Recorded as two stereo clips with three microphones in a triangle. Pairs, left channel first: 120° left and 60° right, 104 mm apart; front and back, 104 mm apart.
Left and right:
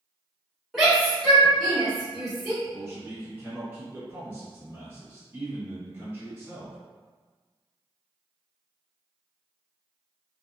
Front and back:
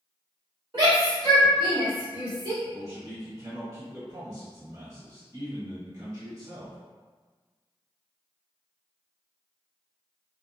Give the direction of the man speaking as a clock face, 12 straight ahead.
4 o'clock.